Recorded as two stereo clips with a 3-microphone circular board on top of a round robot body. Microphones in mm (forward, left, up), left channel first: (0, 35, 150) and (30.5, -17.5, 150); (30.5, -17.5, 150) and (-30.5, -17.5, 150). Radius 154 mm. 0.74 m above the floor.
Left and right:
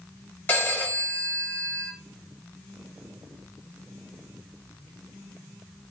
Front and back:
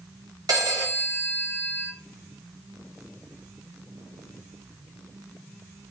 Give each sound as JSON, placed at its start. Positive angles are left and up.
{"t": 0.5, "sound": "a phone ringing", "azimuth_deg": 180, "distance_m": 1.2}